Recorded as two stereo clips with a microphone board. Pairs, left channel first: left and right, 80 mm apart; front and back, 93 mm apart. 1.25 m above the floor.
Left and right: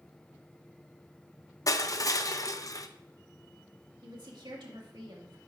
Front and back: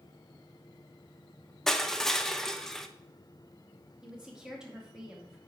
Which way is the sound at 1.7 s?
85° left.